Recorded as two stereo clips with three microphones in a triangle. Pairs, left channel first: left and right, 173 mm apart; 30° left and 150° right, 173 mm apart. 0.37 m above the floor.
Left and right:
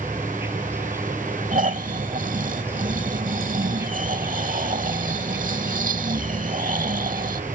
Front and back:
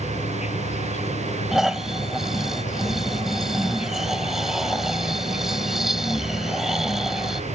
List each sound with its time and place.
0.0 s an insect: 15° right
1.5 s snoring: 60° right